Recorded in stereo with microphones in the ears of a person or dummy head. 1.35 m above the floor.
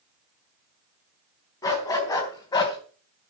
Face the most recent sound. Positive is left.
turn(degrees=25)  # may be behind; listen again after turning